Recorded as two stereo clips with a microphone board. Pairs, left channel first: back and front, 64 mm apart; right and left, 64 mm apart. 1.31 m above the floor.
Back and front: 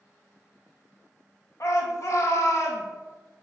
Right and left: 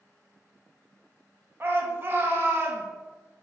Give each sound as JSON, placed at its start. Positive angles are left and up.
{"t": 1.6, "sound": "a shout", "azimuth_deg": 145, "distance_m": 0.9}